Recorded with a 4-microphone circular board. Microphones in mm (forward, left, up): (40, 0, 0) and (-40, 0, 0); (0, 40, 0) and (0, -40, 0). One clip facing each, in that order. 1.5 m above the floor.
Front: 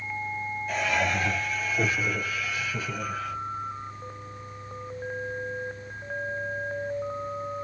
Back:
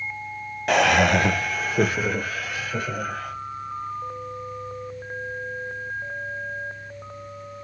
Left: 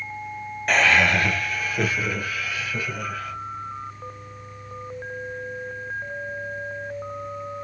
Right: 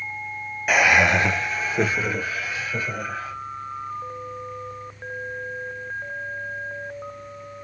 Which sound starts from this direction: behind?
Laughter, at 0.7 s.